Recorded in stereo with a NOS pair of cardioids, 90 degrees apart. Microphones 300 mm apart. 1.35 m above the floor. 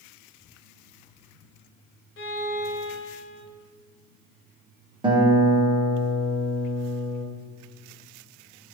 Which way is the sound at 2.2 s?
45° left.